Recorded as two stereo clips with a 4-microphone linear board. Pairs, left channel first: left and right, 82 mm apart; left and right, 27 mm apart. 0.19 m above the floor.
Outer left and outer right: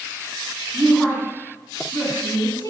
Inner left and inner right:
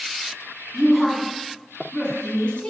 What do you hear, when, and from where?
0.7 s a woman speaking: 5° left (ahead or behind), 2 m; by 2.7 s 50° left (ahead or behind), 2.5 m